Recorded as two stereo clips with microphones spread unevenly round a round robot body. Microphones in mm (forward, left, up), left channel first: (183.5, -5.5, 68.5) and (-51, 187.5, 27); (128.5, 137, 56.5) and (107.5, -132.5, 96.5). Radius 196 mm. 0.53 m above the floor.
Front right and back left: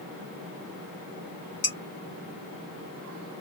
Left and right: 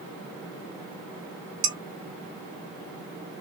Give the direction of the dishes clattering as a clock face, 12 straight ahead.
3 o'clock.